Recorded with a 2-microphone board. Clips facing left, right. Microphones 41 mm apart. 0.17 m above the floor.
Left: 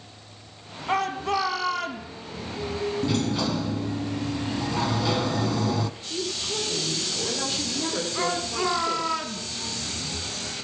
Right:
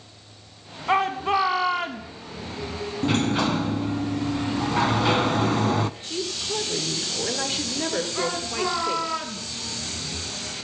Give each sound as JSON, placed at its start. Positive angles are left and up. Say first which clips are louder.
{"t": 0.9, "sound": "a shout", "louder": "right 3 dB", "side_deg": -25, "distance_m": 1.3}
{"t": 3.0, "sound": "a sliding door", "louder": "right 6 dB", "side_deg": -40, "distance_m": 0.7}
{"t": 6.0, "sound": "a woman speaking", "louder": "right 1 dB", "side_deg": -40, "distance_m": 4.0}
{"t": 8.2, "sound": "a shout", "louder": "even", "side_deg": 0, "distance_m": 2.0}